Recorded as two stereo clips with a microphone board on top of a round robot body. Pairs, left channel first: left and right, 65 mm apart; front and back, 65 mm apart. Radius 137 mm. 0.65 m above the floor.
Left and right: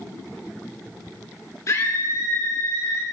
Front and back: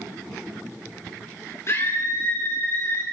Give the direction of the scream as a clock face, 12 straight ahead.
10 o'clock.